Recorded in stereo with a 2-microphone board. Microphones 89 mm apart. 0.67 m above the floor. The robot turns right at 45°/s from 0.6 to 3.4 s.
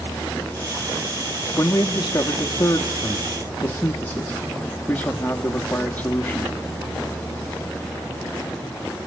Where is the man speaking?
70° left, 1.0 m; by 6.5 s 150° left, 1.0 m.